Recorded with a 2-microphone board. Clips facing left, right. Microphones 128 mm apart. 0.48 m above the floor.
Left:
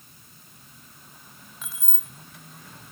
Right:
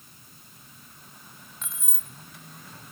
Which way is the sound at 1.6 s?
5° left (ahead or behind).